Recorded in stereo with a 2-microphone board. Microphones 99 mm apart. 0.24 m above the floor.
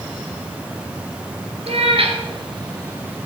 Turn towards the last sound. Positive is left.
turn(degrees=-15)  # may be behind; listen again after turning